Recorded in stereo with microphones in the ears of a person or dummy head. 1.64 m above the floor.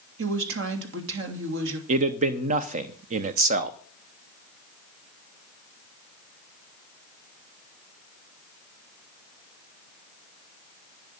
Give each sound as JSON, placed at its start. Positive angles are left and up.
{"t": 0.2, "sound": "a woman speaking", "side_deg": -75, "distance_m": 3.0}
{"t": 1.9, "sound": "a man speaking", "side_deg": -45, "distance_m": 0.8}